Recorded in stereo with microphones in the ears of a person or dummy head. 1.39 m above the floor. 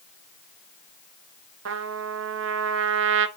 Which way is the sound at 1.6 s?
65° right (ahead or behind).